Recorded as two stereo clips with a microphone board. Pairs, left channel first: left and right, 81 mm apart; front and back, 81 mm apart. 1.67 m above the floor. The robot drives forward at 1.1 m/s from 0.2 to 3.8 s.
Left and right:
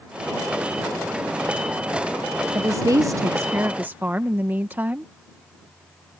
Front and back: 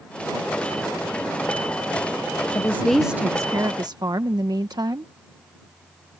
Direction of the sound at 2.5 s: 40° right.